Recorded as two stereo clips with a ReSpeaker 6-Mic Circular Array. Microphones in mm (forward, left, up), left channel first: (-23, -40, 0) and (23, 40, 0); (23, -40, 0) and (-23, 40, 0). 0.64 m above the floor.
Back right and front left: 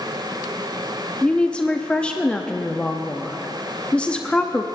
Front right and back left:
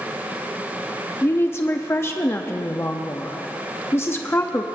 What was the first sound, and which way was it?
A woman speaking, 60° right.